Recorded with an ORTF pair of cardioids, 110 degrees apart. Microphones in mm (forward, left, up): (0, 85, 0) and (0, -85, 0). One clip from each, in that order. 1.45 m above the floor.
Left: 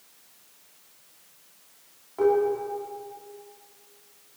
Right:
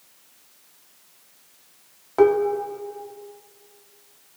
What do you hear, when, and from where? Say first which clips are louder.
2.2 s dishes clattering: right 4 dB; 70° right, 2.5 m